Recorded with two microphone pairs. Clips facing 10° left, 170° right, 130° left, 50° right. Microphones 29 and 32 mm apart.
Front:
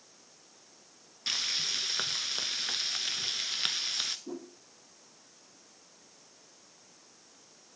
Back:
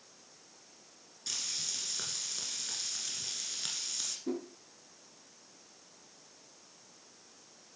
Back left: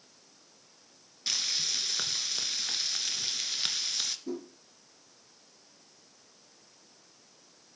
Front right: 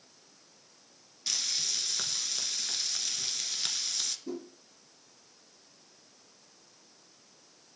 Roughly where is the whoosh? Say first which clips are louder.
Back 4 dB, back left 1 dB; behind right.